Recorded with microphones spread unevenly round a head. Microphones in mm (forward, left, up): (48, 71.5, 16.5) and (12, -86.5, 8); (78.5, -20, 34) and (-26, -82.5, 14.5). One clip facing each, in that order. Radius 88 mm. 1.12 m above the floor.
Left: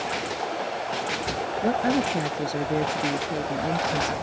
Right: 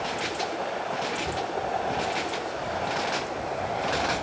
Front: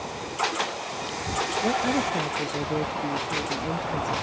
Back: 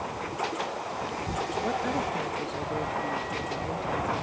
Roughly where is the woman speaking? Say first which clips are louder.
Left 10 dB, front 6 dB; left.